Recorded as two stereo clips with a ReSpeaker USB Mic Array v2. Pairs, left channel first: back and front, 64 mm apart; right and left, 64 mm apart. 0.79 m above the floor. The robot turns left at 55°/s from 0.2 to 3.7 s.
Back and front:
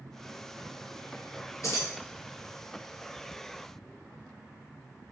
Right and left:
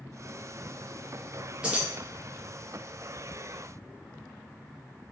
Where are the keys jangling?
160° left, 0.7 m; by 1.9 s 145° left, 0.7 m.